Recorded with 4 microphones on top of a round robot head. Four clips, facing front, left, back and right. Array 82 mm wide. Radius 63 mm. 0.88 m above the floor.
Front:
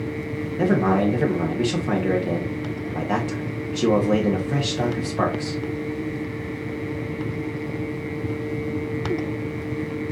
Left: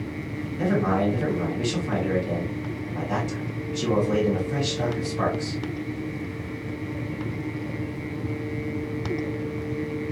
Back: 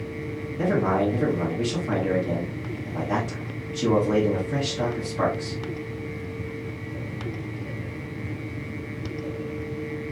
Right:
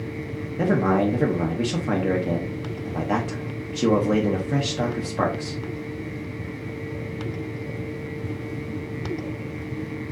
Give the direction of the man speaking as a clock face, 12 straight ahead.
1 o'clock.